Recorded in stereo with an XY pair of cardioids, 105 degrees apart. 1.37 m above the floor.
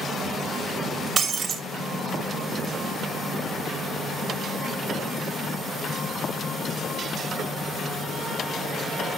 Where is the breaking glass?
40° right, 2.5 m.